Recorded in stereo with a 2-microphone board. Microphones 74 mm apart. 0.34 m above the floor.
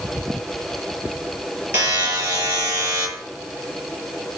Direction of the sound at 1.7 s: 30° right (ahead or behind).